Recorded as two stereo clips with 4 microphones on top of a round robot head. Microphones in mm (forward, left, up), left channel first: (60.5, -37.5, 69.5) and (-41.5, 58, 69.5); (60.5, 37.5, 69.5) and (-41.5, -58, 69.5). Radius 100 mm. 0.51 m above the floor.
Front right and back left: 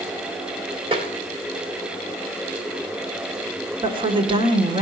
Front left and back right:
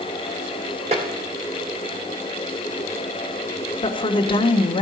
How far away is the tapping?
About 2.5 m.